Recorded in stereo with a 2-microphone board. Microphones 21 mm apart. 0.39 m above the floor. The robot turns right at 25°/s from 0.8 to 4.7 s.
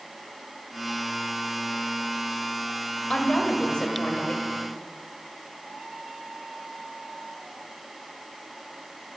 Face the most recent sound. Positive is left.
turn(degrees=100)